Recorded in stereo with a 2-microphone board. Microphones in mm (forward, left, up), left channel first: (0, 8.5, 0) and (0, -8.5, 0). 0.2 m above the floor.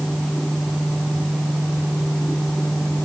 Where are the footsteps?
No footsteps in this recording.